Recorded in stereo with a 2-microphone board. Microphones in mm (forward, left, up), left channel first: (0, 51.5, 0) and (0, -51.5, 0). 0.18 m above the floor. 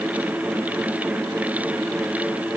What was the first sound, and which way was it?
Only background noise.